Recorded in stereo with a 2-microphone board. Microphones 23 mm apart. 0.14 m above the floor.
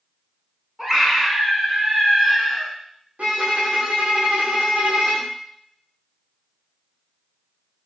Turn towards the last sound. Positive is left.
turn(degrees=-85)